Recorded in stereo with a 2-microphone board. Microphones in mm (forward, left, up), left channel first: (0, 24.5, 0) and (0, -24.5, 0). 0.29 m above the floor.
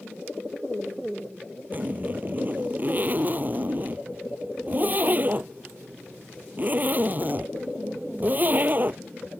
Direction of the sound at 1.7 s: 35° right (ahead or behind).